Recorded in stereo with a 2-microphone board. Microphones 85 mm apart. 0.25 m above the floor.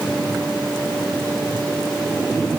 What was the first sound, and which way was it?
Only background noise.